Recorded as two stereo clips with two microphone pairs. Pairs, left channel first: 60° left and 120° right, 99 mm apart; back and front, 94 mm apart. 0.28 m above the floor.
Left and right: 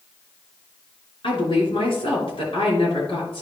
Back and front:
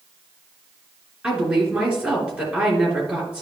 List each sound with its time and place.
1.2 s a woman speaking: 75° left, 3 m